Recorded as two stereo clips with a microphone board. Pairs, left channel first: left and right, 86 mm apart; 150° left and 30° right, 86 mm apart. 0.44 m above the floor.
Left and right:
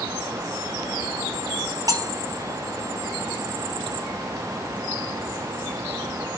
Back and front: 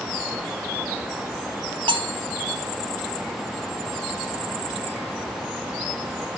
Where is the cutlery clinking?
45° right, 2 m.